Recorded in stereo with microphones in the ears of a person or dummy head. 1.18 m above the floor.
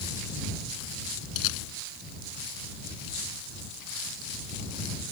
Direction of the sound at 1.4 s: 80° left.